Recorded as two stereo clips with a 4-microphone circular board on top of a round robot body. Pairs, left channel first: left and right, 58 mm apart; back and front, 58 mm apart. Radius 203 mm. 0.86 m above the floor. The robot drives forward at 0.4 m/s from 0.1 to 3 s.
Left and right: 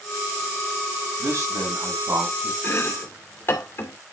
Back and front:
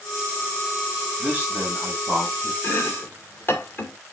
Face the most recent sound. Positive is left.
turn(degrees=135)